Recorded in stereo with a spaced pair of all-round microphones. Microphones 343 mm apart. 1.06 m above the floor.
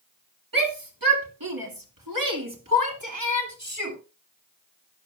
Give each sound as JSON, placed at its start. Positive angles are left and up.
{"t": 0.5, "sound": "a shout", "side_deg": -75, "distance_m": 2.5}